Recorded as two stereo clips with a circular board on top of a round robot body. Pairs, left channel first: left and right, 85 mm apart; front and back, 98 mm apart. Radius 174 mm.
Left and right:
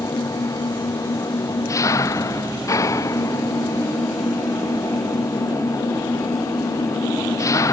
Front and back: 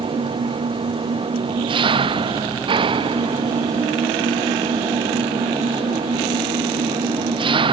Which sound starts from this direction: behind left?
An engine running, at 0.0 s.